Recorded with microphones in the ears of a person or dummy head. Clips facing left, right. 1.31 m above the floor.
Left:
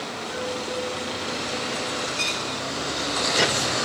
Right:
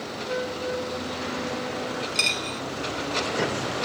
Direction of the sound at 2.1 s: 55° right (ahead or behind).